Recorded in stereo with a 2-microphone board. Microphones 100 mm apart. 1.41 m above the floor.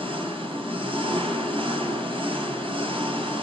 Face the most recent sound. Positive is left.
turn(degrees=-60)  # may be behind; listen again after turning